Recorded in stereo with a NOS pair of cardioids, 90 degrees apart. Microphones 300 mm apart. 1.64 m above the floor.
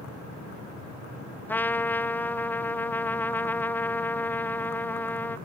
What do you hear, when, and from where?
1.5 s a trumpet: 5° left, 0.5 m